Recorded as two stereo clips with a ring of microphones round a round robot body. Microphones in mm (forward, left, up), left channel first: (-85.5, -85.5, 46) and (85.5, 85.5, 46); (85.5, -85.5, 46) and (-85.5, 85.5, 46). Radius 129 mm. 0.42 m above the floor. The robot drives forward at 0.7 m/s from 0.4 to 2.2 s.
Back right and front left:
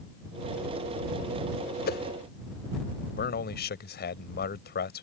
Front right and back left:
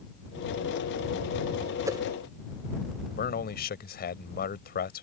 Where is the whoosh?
155° right; by 2.0 s 160° right.